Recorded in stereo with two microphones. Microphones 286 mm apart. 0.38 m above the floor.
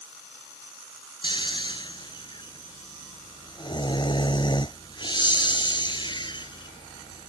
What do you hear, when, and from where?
1.2 s snoring: 15° left (ahead or behind)